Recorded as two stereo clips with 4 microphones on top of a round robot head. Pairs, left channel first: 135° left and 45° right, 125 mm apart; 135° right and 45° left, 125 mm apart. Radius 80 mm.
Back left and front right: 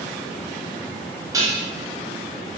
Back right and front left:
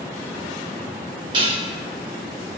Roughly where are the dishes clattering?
Ahead.